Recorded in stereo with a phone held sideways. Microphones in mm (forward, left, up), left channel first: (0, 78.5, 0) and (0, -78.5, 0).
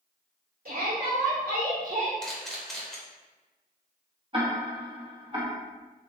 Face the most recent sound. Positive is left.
turn(degrees=-35)  # may be behind; listen again after turning